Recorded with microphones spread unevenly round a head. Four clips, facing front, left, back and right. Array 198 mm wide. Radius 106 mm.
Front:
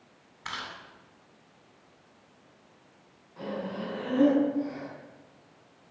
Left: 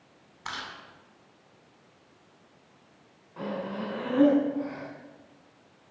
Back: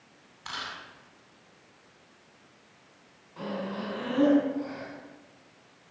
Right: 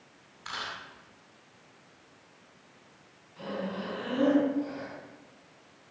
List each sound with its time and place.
0.5 s chewing: 90° left, 8.5 m
3.4 s breathing: 115° left, 7.5 m